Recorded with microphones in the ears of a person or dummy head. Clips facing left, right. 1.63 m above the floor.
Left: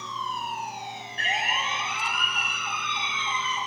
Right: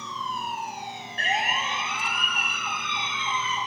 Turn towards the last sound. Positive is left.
turn(degrees=-50)  # may be behind; listen again after turning